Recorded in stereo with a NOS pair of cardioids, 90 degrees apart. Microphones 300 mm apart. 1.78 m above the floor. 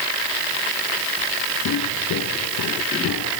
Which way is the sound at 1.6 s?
70° left.